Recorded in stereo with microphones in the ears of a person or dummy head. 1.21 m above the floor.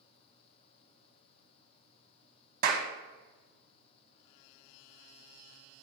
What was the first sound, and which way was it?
A clap, 50° right (ahead or behind).